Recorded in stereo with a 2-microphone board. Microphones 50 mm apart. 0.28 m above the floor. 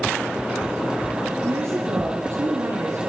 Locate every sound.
1.4 s a woman speaking: 65° right (ahead or behind), 4.5 m